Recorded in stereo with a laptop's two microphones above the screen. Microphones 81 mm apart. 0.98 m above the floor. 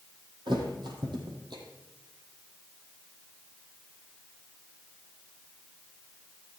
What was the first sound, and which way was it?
A thud, 70° right (ahead or behind).